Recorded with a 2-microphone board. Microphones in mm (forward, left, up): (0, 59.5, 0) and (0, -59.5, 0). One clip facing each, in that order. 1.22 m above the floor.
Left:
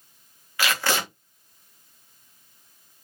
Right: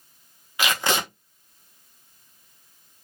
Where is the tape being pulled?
20° right (ahead or behind), 0.7 m.